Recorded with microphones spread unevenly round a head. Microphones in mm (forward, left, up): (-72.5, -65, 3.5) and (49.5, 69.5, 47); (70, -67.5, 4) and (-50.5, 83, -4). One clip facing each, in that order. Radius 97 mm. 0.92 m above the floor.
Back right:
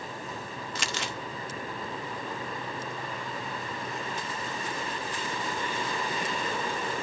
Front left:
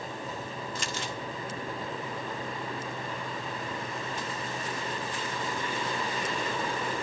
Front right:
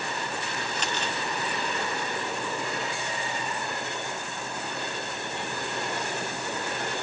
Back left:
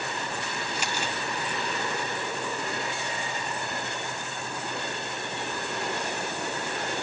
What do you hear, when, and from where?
0.8 s crumpling: 150° right, 0.9 m